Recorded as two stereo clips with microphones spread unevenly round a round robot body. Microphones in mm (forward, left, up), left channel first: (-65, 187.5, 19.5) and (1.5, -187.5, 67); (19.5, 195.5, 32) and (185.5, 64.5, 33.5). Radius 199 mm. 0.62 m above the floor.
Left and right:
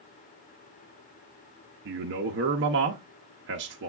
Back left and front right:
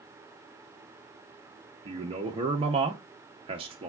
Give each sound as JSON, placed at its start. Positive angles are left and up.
{"t": 1.9, "sound": "a man speaking", "azimuth_deg": -50, "distance_m": 0.6}